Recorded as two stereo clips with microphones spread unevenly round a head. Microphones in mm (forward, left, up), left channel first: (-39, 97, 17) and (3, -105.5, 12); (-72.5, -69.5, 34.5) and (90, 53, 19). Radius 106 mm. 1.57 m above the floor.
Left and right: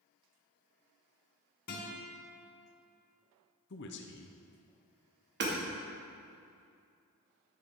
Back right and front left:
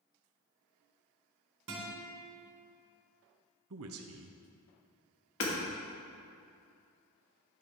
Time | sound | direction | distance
1.7 | a guitar | 65° left | 3 m
3.7 | a man speaking | 60° left | 0.8 m
5.4 | hammering | 115° right | 2.5 m